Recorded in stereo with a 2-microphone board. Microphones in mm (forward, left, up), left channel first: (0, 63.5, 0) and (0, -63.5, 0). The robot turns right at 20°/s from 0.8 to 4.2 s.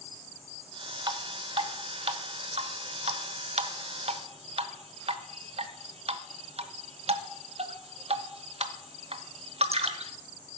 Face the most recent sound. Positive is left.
turn(degrees=-55)  # may be behind; listen again after turning